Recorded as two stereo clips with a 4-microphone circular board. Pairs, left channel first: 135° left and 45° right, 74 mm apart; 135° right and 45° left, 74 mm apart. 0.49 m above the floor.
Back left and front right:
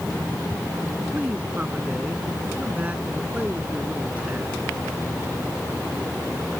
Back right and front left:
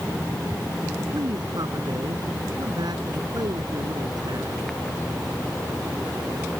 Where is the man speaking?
25° left.